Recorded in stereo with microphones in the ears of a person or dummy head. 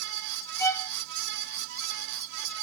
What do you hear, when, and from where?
0.6 s a violin: 10° left (ahead or behind), 1.4 m